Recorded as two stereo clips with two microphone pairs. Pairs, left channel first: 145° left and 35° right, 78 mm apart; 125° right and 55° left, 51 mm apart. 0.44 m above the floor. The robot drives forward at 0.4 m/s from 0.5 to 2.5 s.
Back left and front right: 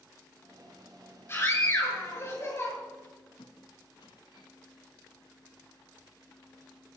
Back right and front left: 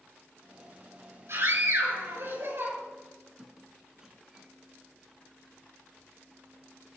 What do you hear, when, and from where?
1.3 s a scream: 85° left, 8 m; by 2.7 s 90° left, 8 m
3.4 s a squeak: 130° left, 1.5 m